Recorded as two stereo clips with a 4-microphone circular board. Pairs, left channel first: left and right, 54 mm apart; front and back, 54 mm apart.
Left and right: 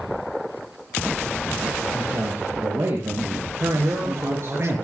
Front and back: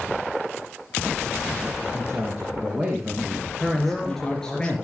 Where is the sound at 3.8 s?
75° right, 5 m.